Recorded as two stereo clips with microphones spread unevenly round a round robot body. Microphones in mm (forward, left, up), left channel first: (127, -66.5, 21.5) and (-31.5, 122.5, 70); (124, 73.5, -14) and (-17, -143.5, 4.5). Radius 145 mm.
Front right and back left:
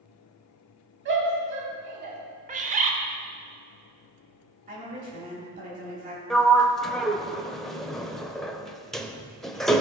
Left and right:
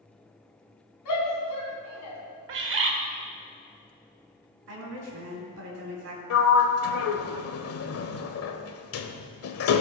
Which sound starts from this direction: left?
A shout, at 1.1 s.